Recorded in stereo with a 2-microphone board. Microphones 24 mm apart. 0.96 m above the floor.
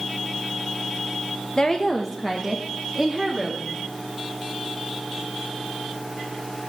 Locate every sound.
1.6 s a woman speaking: 35° left (ahead or behind), 0.9 m; by 3.6 s 5° right (ahead or behind), 2 m